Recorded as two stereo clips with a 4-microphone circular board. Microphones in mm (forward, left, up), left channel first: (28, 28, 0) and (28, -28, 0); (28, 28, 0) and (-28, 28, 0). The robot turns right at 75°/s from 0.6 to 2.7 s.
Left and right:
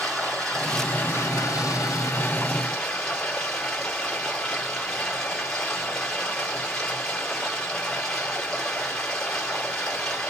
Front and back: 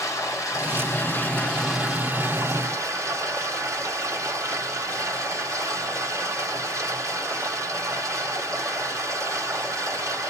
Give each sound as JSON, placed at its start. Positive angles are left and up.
{"t": 0.0, "sound": "running water", "azimuth_deg": 10, "distance_m": 1.8}